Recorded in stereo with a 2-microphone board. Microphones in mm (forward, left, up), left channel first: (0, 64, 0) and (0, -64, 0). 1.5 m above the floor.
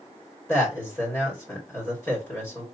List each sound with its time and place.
0.5 s a man speaking: 15° left (ahead or behind), 1.9 m